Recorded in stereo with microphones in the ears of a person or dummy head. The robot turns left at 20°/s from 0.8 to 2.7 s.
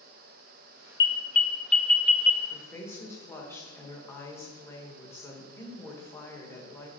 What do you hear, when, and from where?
1.0 s an alarm: 15° left (ahead or behind), 0.7 m; by 2.4 s 10° right (ahead or behind), 0.7 m
2.5 s a woman speaking: 15° left (ahead or behind), 1.4 m; by 6.9 s 20° left (ahead or behind), 1.4 m